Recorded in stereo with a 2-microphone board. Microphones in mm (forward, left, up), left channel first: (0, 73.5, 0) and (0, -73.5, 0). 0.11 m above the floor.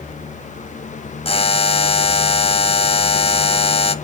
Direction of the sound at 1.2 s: 40° left (ahead or behind).